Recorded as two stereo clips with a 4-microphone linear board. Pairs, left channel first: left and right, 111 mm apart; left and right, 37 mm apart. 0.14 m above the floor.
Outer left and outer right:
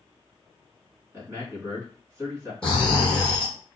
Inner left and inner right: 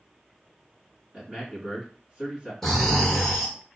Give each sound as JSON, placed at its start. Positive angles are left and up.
{"t": 1.1, "sound": "a man speaking", "side_deg": -20, "distance_m": 1.7}
{"t": 2.6, "sound": "snoring", "side_deg": 10, "distance_m": 1.1}